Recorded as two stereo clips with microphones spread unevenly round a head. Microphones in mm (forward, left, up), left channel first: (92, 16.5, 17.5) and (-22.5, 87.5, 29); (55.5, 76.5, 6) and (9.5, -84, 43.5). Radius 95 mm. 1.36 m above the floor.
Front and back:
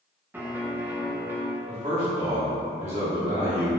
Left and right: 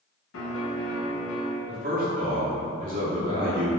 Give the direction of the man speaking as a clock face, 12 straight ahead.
5 o'clock.